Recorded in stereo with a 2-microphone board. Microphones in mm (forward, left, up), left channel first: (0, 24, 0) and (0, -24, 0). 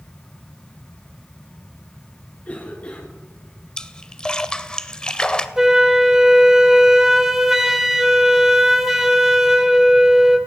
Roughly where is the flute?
Centre.